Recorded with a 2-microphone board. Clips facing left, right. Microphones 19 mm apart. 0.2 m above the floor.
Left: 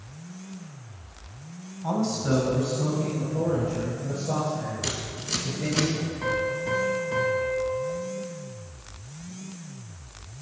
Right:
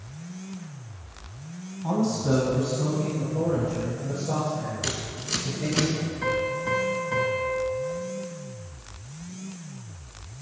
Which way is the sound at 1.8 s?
20° left (ahead or behind).